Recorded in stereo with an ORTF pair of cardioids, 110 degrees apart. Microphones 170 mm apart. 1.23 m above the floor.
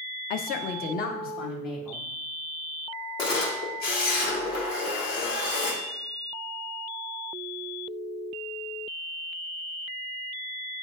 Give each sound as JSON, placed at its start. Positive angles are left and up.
{"t": 0.3, "sound": "a woman speaking", "azimuth_deg": 60, "distance_m": 0.6}
{"t": 3.2, "sound": "a camera shutter", "azimuth_deg": 70, "distance_m": 1.7}